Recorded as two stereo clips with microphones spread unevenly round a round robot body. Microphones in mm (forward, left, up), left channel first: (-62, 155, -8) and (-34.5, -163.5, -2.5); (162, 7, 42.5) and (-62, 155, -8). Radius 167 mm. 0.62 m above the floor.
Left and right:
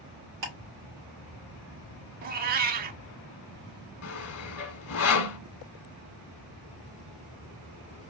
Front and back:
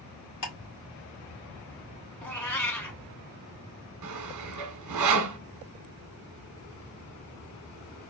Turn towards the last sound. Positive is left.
turn(degrees=135)